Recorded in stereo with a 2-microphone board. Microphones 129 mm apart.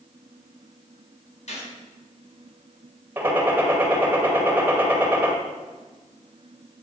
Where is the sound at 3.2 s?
15° right (ahead or behind), 1.9 m.